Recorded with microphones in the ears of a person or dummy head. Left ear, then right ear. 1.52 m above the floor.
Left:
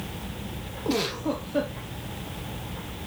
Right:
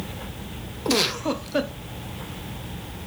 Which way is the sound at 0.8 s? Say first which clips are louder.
Right 5 dB; 35° right (ahead or behind).